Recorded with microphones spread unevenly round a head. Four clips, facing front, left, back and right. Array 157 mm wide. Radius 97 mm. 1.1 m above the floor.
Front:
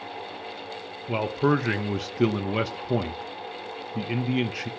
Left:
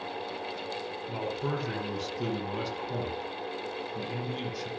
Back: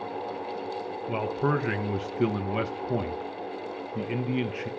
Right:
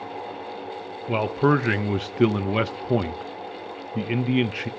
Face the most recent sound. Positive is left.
turn(degrees=-65)